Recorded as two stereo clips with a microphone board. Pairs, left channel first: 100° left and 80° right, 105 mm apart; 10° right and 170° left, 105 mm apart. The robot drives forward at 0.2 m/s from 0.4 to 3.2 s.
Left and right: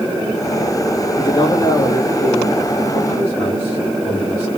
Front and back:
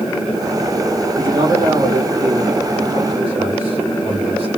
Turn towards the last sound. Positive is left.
turn(degrees=160)